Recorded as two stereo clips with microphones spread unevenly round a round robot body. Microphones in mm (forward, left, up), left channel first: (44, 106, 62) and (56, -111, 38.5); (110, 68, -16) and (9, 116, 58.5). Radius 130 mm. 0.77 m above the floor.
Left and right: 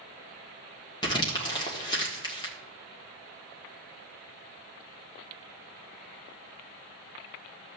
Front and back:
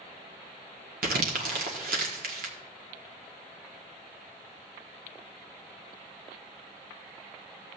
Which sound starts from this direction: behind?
Crumpling, at 1.0 s.